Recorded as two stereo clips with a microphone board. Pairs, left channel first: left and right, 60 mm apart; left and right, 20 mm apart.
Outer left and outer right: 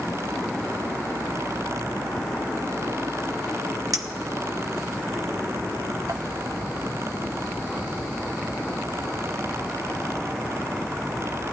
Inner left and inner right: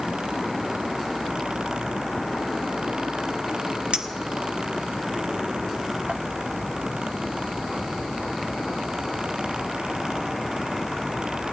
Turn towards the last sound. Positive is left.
turn(degrees=-70)  # may be behind; listen again after turning